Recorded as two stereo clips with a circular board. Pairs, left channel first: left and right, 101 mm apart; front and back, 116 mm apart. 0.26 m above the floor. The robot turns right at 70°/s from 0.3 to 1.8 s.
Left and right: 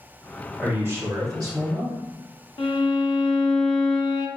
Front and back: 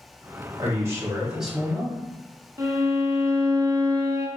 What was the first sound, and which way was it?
A man speaking, 155° right.